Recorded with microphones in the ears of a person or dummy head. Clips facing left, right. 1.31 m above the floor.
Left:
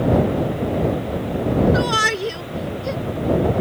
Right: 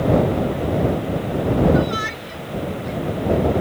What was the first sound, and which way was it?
A shout, 85° left.